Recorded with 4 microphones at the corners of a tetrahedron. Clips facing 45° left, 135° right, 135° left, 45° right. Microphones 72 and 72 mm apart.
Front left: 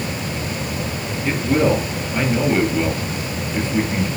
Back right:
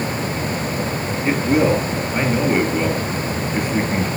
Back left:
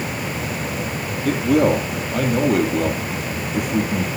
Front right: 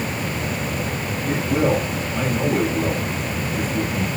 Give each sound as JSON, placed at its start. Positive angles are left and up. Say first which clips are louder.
{"t": 1.2, "sound": "a man speaking", "louder": "back right 1 dB, back left 4 dB", "azimuth_deg": 150, "distance_m": 4.0}